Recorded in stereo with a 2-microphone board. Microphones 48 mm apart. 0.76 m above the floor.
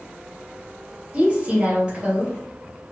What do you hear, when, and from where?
1.1 s a woman speaking: 25° right (ahead or behind), 1.6 m